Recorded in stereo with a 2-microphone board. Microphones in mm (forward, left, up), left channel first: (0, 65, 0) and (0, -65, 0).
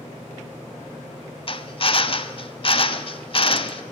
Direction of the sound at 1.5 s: 45° left (ahead or behind).